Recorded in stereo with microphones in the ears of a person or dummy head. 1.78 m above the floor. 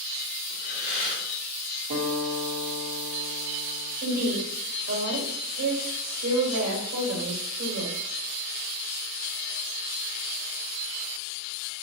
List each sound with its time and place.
0.5 s breathing: 45° left (ahead or behind), 2.0 m
1.9 s a guitar: 60° right (ahead or behind), 0.9 m
4.0 s a woman speaking: 80° right, 1.2 m